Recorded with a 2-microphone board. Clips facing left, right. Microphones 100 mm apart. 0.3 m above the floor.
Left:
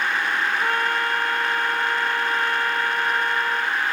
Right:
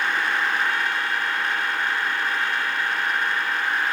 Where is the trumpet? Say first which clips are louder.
Left 2 dB; 50° left (ahead or behind).